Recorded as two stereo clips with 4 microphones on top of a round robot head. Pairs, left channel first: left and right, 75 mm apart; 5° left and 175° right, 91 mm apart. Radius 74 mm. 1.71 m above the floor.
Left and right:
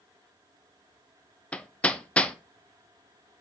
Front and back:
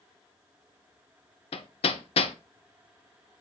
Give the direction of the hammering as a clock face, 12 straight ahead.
11 o'clock.